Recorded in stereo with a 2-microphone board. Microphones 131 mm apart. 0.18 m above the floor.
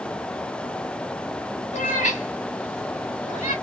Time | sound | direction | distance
1.7 | a cat meowing | 65° left (ahead or behind) | 2 m